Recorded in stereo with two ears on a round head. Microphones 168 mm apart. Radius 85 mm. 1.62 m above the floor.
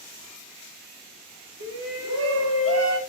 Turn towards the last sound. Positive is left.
turn(degrees=-85)